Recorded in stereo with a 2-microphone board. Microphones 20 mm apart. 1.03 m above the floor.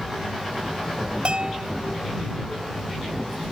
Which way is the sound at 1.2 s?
55° right (ahead or behind).